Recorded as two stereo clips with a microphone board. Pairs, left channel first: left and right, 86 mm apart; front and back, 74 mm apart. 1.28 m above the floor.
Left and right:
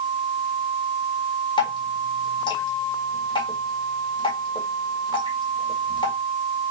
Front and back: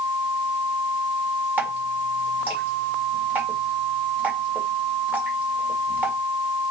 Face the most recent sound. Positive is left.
turn(degrees=110)